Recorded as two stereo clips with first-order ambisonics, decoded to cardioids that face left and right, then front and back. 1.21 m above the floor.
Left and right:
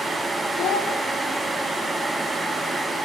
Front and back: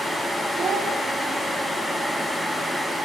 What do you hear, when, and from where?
0.6 s a child speaking: 120° left, 2 m